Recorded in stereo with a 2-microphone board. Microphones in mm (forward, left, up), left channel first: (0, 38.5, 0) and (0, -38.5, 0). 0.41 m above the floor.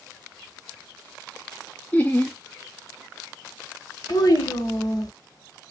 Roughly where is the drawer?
No drawer in this recording.